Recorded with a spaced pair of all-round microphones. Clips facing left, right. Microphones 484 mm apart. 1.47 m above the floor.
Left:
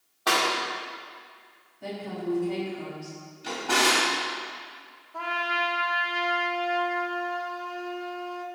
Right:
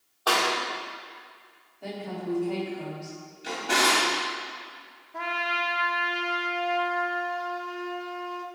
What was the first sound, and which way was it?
A clap, 40° left (ahead or behind).